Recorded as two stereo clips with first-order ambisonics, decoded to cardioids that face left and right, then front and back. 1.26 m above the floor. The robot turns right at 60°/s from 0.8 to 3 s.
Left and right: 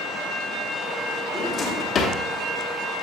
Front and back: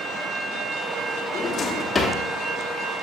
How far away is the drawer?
About 0.8 m.